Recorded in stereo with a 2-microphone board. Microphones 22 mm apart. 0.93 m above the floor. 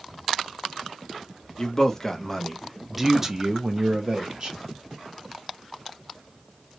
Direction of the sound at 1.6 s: 30° left (ahead or behind).